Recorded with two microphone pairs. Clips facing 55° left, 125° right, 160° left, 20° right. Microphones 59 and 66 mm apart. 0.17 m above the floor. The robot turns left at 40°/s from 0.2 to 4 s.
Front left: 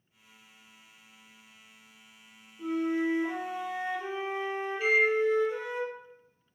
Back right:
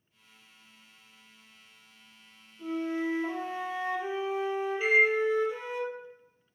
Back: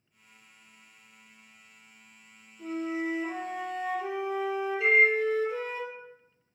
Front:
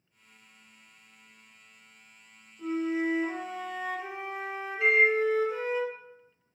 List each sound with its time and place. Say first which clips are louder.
2.6 s a flute: front left 3 dB, front 3 dB; 5° left, 1.9 m; by 5.8 s 50° right, 1.9 m
4.8 s a microwave: back right 1 dB, even; 50° right, 1.8 m